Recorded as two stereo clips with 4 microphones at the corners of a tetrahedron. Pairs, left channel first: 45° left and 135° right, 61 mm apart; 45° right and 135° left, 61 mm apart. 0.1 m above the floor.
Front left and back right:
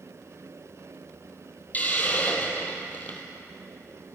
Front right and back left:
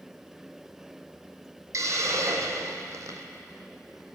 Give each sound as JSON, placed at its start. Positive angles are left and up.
{"t": 1.7, "sound": "a hiss", "azimuth_deg": 105, "distance_m": 1.6}